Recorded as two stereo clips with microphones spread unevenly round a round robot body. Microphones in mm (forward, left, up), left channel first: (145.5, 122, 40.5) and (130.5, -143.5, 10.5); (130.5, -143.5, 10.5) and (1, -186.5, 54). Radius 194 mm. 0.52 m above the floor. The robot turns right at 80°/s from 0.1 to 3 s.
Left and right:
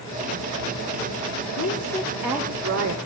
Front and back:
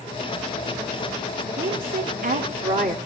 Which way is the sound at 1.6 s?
130° left.